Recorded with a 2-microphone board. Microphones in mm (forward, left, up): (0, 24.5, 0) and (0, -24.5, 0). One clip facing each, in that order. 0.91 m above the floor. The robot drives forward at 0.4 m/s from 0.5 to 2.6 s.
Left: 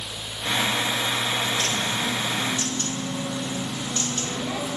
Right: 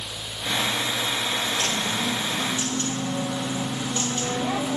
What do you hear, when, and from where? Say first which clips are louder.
1.6 s a bird: even; 30° right (ahead or behind), 0.6 m; by 4.8 s 20° right (ahead or behind), 1.0 m